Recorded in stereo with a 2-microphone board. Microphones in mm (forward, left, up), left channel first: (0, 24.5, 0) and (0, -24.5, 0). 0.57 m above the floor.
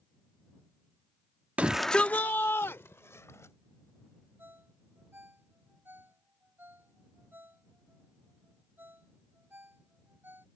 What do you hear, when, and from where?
1.6 s a shout: 30° right (ahead or behind); by 3.5 s 70° left (ahead or behind)
4.4 s a ringtone: 40° right (ahead or behind)